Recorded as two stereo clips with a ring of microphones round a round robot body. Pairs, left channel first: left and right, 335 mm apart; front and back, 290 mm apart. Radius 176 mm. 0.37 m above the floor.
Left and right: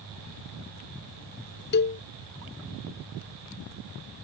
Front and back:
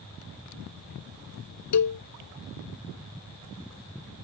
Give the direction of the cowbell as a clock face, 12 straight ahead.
11 o'clock.